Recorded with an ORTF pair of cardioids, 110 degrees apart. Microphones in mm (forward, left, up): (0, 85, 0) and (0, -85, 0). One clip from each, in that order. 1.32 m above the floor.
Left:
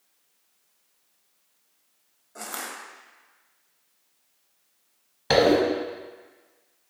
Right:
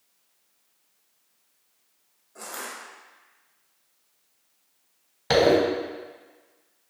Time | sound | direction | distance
2.4 | crushing | 25° left | 0.5 m
5.3 | a zipper | straight ahead | 0.7 m